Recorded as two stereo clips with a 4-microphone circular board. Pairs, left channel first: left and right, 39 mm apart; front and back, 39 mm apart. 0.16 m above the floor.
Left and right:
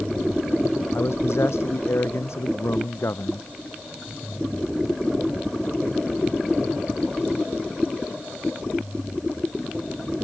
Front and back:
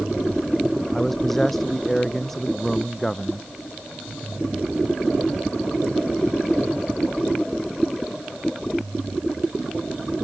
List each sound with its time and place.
0.9 s a man speaking: 85° left